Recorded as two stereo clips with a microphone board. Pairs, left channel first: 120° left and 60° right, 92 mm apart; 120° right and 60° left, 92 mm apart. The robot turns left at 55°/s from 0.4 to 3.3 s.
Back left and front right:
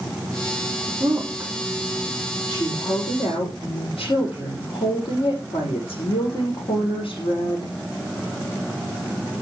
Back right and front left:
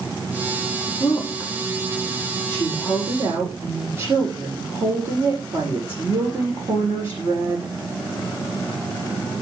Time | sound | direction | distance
1.0 | a woman speaking | 115° right | 6 m